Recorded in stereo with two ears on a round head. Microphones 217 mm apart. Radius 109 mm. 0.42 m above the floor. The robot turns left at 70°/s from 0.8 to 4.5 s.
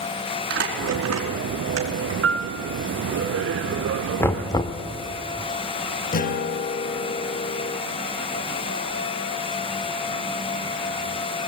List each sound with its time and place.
0.5 s crumpling: 45° right (ahead or behind), 4.5 m; by 2.1 s 40° right (ahead or behind), 4.5 m
2.2 s a piano: 55° right (ahead or behind), 0.7 m; by 2.5 s 40° right (ahead or behind), 0.7 m
4.2 s knocking: 10° left (ahead or behind), 1.1 m; by 4.8 s 15° left (ahead or behind), 1.1 m
6.1 s a guitar: 35° left (ahead or behind), 0.8 m